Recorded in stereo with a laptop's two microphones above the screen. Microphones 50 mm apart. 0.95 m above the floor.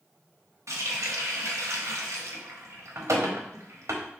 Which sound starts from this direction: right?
A running tap, at 0.7 s.